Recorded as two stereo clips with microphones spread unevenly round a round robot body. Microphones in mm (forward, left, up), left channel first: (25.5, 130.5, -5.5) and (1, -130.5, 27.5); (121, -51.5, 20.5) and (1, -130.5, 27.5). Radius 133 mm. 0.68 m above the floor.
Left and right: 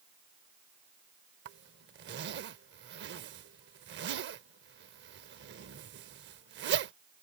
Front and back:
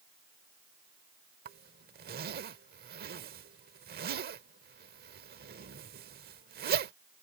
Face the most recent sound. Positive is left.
turn(degrees=-145)